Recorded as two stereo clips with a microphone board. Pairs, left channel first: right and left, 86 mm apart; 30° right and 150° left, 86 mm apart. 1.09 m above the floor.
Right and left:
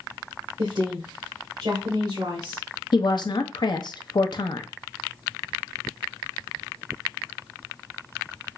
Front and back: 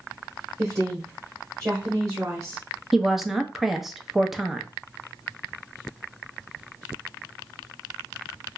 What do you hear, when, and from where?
0.6 s a woman speaking: 100° left, 1.3 m
2.9 s a woman speaking: 120° right, 0.7 m